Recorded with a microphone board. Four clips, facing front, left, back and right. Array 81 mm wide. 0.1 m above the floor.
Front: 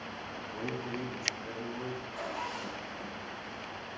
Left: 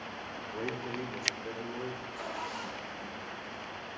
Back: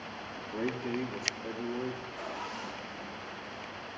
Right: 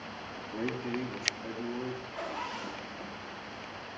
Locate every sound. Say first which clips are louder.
0.4 s a man speaking: right 2 dB, back 4 dB; 140° right, 3.5 m
2.1 s a zipper: right 1 dB, front 2 dB; 80° right, 6 m